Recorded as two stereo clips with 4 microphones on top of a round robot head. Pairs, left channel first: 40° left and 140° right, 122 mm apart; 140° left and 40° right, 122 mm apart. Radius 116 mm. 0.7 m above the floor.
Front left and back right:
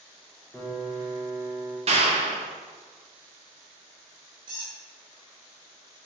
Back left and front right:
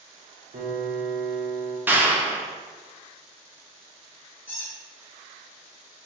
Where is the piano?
50° right, 1.0 m.